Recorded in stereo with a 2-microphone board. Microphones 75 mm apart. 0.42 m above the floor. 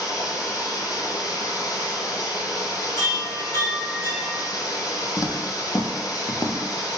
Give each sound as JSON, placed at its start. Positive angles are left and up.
{"t": 0.0, "sound": "running water", "side_deg": 50, "distance_m": 1.1}
{"t": 3.0, "sound": "a chime", "side_deg": 55, "distance_m": 2.0}
{"t": 5.2, "sound": "footsteps", "side_deg": 45, "distance_m": 0.9}